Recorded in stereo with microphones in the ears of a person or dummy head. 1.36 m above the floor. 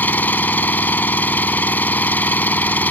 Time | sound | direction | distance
0.0 | an engine running | 15° left (ahead or behind) | ?